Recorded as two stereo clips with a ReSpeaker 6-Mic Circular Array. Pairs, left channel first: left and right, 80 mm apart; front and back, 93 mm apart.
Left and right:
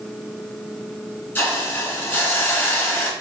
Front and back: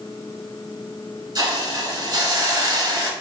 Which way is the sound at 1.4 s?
155° left.